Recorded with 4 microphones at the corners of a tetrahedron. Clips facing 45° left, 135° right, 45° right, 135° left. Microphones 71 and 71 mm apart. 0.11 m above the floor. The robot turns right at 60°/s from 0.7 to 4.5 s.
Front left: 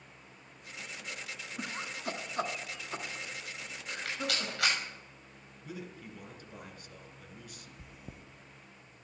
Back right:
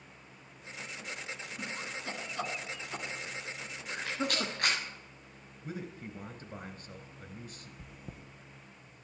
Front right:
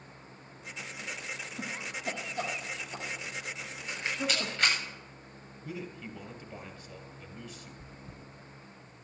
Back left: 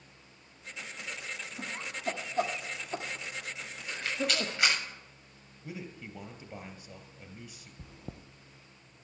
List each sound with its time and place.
1.6 s laughter: 20° left, 1.3 m; by 4.8 s 165° right, 1.3 m
3.9 s a rattle: 20° left, 7.5 m; by 4.8 s 55° left, 7.5 m
5.6 s a man speaking: 165° right, 2 m
7.8 s chewing: 130° left, 1.0 m